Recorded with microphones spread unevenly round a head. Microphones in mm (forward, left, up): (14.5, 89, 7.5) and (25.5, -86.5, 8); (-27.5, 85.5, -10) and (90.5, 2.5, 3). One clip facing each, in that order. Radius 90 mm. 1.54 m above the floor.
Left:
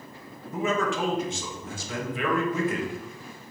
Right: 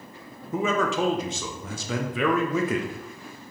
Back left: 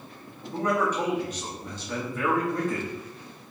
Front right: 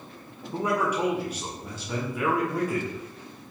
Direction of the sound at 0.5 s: 120° right.